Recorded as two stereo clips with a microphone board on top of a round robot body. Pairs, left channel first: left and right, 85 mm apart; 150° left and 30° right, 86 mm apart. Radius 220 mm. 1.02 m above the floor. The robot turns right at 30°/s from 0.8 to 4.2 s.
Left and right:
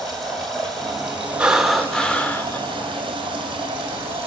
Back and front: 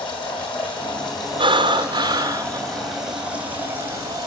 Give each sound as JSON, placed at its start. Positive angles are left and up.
{"t": 0.0, "sound": "running water", "azimuth_deg": 175, "distance_m": 2.0}
{"t": 1.4, "sound": "breathing", "azimuth_deg": -10, "distance_m": 0.7}